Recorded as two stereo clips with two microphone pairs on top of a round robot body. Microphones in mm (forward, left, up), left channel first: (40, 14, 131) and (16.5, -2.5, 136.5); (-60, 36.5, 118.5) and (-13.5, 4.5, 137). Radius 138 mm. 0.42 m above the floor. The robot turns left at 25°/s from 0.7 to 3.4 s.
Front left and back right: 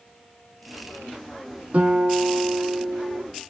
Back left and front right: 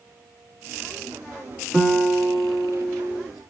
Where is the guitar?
145° right, 1.9 m; by 3.2 s straight behind, 1.9 m.